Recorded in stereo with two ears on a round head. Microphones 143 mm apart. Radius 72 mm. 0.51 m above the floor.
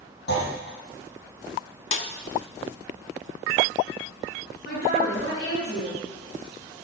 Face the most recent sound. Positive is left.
turn(degrees=70)  # may be behind; listen again after turning